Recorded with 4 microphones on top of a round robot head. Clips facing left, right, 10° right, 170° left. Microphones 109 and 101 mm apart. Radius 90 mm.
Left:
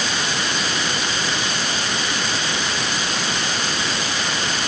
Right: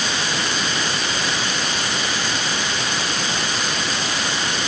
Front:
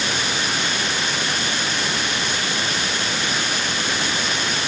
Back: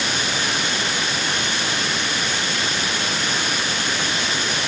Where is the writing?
I don't hear writing.